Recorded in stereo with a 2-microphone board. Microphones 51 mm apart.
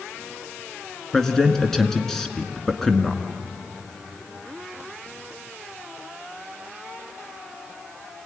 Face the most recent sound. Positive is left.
turn(degrees=10)  # may be behind; listen again after turning